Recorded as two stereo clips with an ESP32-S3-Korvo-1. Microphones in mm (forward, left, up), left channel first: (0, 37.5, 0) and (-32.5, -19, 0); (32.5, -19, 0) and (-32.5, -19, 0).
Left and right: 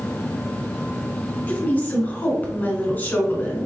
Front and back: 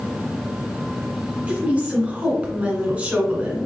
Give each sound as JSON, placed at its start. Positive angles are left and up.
{"t": 1.5, "sound": "a woman speaking", "azimuth_deg": 115, "distance_m": 1.7}